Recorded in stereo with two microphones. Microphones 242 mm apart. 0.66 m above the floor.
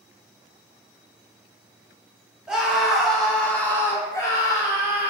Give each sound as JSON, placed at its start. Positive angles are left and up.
{"t": 2.5, "sound": "a scream", "side_deg": -5, "distance_m": 1.4}